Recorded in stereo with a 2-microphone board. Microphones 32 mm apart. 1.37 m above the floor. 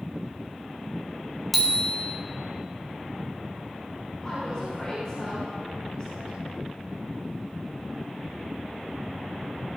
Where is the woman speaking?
25° left (ahead or behind), 5 m.